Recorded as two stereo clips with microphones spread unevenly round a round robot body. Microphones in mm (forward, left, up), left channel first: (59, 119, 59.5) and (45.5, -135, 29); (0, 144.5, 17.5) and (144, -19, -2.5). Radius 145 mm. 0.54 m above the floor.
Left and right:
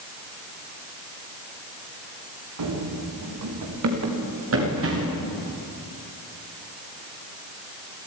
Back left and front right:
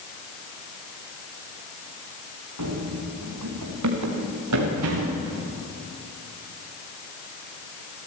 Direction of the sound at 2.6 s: 80° right.